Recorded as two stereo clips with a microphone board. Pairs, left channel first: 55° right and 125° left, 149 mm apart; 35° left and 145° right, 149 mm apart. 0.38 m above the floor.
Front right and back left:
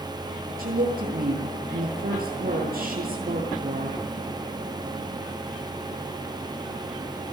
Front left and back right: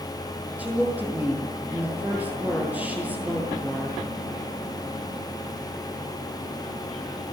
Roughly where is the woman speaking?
Behind left.